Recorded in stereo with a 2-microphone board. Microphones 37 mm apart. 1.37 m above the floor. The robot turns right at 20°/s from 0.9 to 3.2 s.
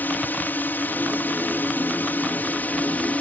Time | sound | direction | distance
0.0 | a drone | 80° left | ?